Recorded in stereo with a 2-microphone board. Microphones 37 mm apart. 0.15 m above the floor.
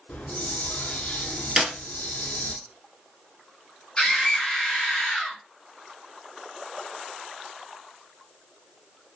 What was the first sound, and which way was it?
A hiss, 50° left (ahead or behind).